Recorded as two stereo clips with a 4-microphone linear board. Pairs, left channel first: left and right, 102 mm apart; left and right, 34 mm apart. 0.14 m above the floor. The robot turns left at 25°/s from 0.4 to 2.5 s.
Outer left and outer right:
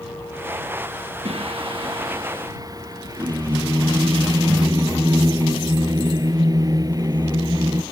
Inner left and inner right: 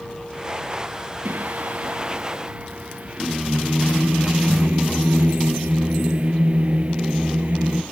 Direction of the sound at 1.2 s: 110° right.